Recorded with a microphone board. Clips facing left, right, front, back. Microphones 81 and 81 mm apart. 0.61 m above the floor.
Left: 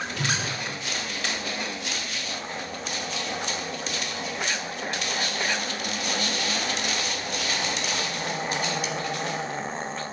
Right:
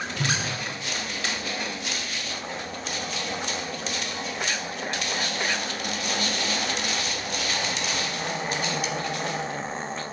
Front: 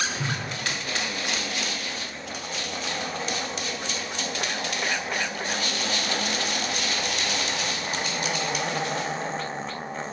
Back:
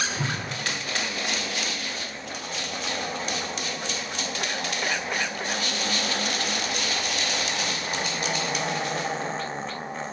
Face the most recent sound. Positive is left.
turn(degrees=150)